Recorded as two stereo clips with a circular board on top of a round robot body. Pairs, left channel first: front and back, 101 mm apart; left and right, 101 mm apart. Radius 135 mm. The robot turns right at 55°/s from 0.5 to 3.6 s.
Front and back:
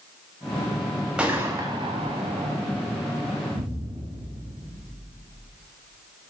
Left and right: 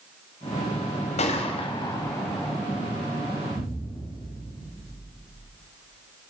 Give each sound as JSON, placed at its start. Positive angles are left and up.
{"t": 1.2, "sound": "a gunshot", "azimuth_deg": 100, "distance_m": 2.0}
{"t": 3.5, "sound": "an explosion", "azimuth_deg": 160, "distance_m": 5.5}